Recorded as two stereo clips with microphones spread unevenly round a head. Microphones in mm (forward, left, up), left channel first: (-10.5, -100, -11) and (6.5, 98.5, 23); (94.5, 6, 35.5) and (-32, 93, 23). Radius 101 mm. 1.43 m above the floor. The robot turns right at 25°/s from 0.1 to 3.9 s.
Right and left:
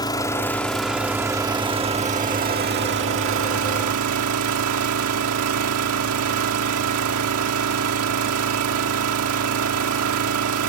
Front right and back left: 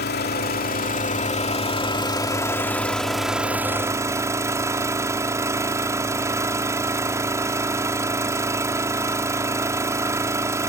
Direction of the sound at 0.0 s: 20° right.